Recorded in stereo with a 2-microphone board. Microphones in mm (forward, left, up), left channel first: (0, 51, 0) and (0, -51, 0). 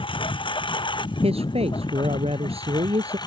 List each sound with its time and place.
0.0 s a lawn mower: 60° left (ahead or behind); by 3.3 s 45° left (ahead or behind)
1.2 s a man speaking: 80° right